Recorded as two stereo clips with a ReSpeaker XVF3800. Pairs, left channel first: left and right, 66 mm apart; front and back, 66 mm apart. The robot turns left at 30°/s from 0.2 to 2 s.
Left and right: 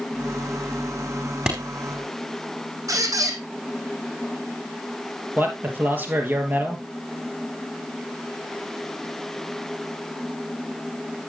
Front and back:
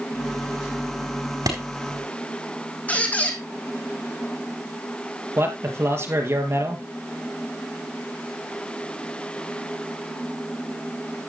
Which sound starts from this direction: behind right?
A man speaking, at 5.4 s.